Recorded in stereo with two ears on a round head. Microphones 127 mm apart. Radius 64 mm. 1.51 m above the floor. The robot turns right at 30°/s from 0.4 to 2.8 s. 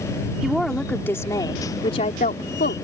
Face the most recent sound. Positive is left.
turn(degrees=70)